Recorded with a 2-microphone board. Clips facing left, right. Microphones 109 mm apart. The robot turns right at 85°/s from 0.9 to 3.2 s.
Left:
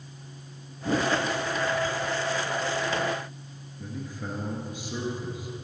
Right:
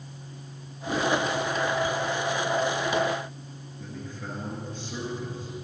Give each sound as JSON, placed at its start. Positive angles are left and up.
{"t": 0.8, "sound": "a whoosh", "side_deg": 35, "distance_m": 1.9}
{"t": 3.8, "sound": "a man speaking", "side_deg": 10, "distance_m": 1.8}